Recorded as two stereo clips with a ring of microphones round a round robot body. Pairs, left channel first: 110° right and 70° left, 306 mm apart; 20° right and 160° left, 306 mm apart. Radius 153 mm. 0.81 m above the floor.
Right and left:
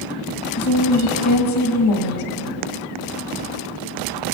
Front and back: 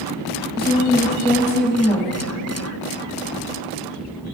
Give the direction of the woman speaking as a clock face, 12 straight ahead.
4 o'clock.